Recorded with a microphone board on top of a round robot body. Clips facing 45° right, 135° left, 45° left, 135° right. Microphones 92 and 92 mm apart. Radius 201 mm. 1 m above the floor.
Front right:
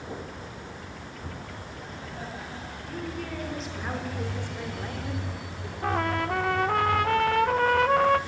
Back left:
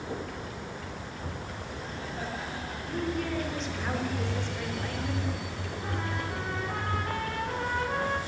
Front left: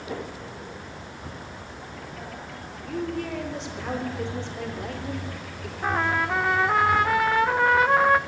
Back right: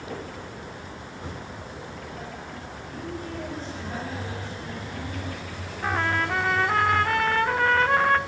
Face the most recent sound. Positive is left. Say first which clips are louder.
# front right 9 dB, front left 1 dB
turn(degrees=-35)